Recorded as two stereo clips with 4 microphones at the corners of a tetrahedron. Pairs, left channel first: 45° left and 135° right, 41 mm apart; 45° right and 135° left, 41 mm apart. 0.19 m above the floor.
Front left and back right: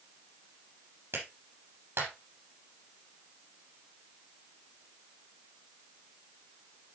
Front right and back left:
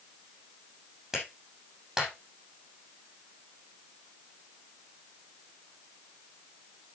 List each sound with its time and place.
1.1 s a clap: 145° right, 7.5 m